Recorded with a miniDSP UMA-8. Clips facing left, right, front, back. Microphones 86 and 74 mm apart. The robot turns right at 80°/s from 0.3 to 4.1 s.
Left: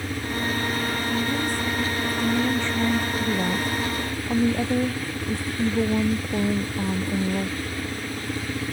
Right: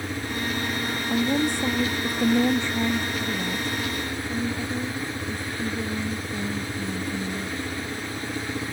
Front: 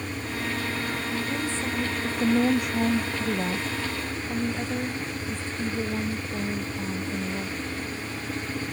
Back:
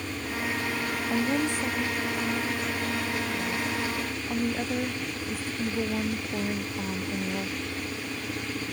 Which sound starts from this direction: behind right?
A woman speaking, at 1.1 s.